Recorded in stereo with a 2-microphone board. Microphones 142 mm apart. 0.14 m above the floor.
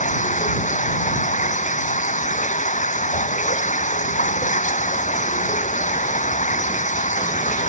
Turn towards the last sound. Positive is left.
turn(degrees=65)  # may be behind; listen again after turning